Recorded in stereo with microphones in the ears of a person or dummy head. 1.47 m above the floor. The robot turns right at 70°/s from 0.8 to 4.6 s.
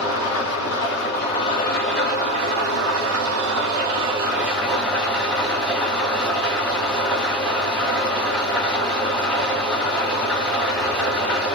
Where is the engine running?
100° left, 2.0 m; by 11.6 s 10° left, 2.0 m.